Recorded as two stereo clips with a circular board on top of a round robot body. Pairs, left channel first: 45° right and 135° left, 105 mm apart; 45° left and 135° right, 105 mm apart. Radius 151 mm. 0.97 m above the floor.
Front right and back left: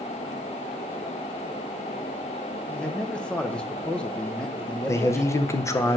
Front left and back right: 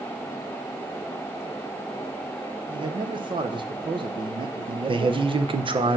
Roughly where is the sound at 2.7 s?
Behind right.